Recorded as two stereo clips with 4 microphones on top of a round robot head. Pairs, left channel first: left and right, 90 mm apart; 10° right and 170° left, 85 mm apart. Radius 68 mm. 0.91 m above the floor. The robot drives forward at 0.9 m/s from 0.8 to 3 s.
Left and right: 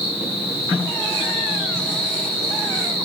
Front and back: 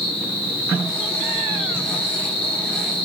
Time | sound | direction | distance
0.0 | an insect | 25° right | 8 m